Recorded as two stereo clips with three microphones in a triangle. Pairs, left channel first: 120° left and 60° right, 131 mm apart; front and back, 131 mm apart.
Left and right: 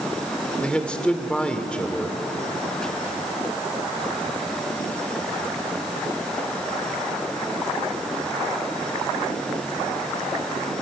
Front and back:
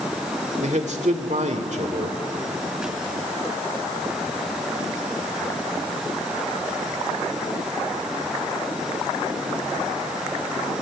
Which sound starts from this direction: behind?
A man speaking, at 0.6 s.